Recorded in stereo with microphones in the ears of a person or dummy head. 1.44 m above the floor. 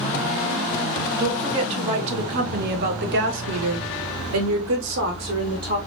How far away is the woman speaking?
About 1.7 m.